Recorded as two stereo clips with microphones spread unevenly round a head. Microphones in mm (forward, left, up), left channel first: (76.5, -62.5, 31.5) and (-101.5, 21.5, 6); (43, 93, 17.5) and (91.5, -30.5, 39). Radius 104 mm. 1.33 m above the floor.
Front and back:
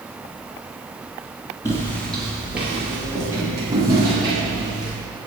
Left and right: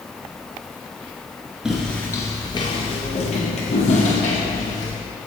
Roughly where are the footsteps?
Ahead.